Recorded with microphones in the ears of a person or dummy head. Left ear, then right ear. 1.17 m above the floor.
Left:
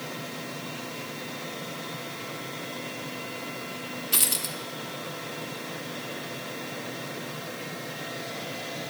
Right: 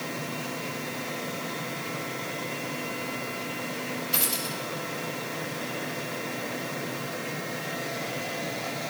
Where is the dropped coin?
65° left (ahead or behind), 1.0 m.